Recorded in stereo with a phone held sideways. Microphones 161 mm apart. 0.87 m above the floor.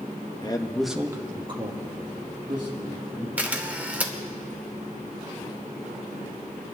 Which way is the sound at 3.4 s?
10° right (ahead or behind).